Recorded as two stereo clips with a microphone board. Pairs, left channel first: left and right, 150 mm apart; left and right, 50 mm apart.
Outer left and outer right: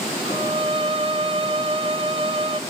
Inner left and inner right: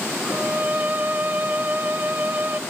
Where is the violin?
40° right (ahead or behind), 0.7 m.